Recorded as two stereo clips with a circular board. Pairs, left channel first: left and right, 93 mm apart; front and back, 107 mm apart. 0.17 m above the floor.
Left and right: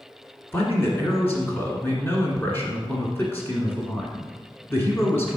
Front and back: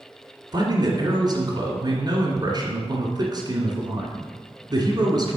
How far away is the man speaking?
About 1.7 m.